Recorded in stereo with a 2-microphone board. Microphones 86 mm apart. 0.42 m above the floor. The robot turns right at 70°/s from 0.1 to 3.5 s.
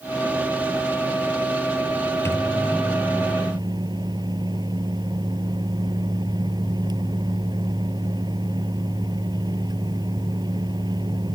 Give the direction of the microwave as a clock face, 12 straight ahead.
7 o'clock.